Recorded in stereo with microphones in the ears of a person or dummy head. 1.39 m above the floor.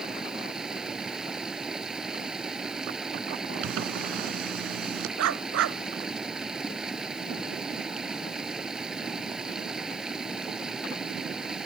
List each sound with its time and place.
0.0 s running water: centre (ahead or behind)
3.6 s a zipper: 85° right
5.2 s a dog barking: 80° right